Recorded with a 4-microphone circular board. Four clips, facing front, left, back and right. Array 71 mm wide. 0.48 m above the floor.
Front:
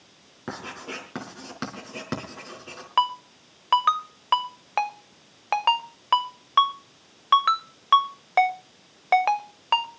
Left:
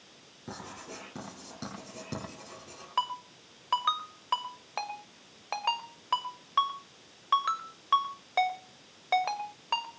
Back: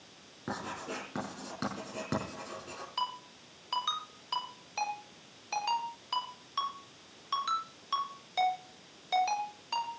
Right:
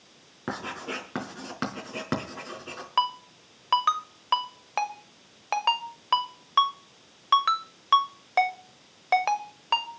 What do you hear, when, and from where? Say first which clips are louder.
0.5 s writing: right 10 dB, front 2 dB; 70° right, 4.5 m
3.0 s a ringtone: right 5 dB, front 14 dB; 20° right, 0.9 m